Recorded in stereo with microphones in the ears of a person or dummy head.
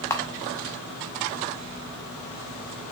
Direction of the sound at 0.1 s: 15° left (ahead or behind).